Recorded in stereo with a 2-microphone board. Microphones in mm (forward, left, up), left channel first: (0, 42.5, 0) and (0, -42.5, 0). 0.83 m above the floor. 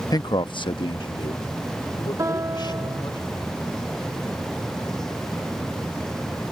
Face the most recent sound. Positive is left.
turn(degrees=-35)  # may be behind; listen again after turning